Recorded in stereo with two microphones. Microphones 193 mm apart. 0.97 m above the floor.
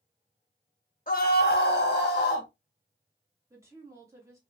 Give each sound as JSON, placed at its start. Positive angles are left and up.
{"t": 1.1, "sound": "a scream", "side_deg": 45, "distance_m": 0.8}
{"t": 3.5, "sound": "a woman speaking", "side_deg": -15, "distance_m": 1.5}